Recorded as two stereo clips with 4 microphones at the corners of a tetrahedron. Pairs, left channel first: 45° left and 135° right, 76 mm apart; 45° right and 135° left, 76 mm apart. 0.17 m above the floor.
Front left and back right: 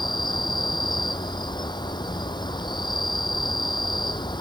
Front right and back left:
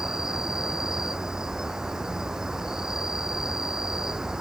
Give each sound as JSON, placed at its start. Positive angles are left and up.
{"t": 0.0, "sound": "an insect", "azimuth_deg": 55}